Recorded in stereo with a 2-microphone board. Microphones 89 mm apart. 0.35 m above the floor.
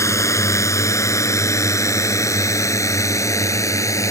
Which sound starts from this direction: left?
A drone, at 0.0 s.